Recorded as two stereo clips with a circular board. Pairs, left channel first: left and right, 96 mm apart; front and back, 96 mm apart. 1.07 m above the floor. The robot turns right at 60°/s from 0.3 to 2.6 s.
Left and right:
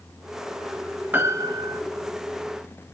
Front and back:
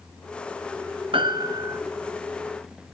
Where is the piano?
160° right, 1.6 m; by 1.8 s 120° right, 1.6 m.